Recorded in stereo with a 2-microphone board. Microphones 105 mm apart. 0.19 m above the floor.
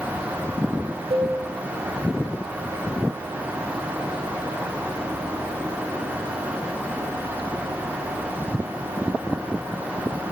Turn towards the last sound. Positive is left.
turn(degrees=-60)  # may be behind; listen again after turning